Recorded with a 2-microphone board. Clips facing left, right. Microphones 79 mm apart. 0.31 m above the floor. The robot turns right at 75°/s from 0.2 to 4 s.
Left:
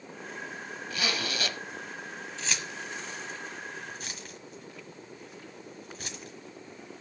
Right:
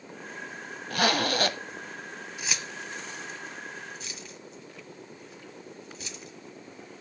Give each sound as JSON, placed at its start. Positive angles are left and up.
{"t": 0.9, "sound": "a zipper", "azimuth_deg": -100, "distance_m": 0.7}
{"t": 2.4, "sound": "keys jangling", "side_deg": -15, "distance_m": 1.5}